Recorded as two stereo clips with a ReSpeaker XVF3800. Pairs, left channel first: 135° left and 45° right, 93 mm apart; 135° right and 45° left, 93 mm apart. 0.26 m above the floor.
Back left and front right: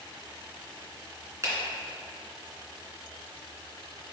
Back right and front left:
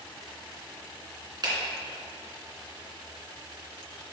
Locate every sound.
1.4 s a finger snap: 10° left, 2.5 m